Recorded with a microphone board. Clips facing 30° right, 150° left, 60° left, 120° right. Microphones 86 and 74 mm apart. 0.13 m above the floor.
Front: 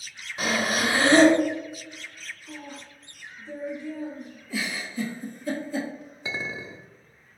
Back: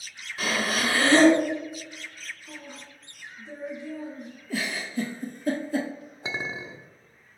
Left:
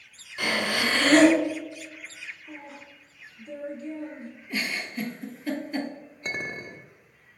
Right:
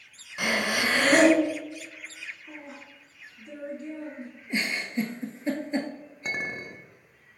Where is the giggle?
175° left, 0.8 m.